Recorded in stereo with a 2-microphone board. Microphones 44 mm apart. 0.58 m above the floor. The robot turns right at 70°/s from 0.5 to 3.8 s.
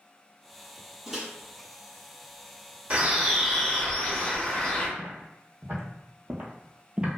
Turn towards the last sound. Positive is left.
turn(degrees=-20)  # may be behind; listen again after turning